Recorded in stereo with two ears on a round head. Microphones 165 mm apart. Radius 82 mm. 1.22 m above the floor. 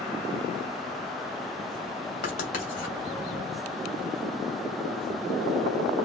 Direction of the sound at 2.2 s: 45° left (ahead or behind).